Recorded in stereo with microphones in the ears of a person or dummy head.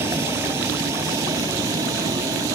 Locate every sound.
0.0 s a vehicle: 10° right (ahead or behind)